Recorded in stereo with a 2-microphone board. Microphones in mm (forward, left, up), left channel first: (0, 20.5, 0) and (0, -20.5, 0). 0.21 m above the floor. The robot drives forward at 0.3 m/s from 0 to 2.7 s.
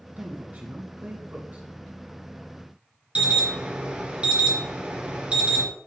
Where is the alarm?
30° right (ahead or behind), 3 m.